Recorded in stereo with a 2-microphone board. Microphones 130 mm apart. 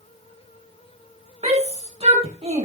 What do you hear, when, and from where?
1.4 s a shout: 50° right (ahead or behind), 6 m